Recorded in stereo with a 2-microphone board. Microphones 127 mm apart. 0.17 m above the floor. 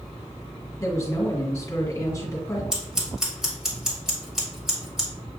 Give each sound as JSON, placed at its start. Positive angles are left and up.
{"t": 0.8, "sound": "a woman speaking", "side_deg": 20, "distance_m": 1.7}
{"t": 2.7, "sound": "scissors", "side_deg": -5, "distance_m": 1.8}